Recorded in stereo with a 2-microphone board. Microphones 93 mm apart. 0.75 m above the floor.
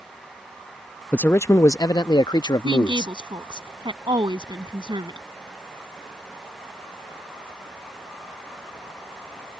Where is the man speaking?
15° left (ahead or behind); by 3.1 s 50° left (ahead or behind).